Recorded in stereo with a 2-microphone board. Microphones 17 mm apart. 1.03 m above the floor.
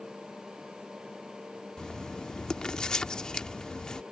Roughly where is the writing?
Left.